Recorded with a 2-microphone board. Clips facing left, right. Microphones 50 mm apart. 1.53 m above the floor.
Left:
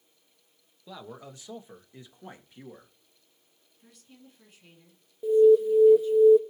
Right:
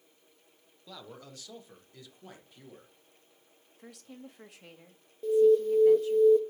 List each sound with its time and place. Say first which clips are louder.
0.9 s a man speaking: left 4 dB; 15° left (ahead or behind), 1.3 m; by 2.9 s 30° left (ahead or behind), 2 m
3.8 s a woman speaking: right 7 dB; 80° right, 1.7 m
5.2 s an alarm: left 4 dB; 5° left (ahead or behind), 0.6 m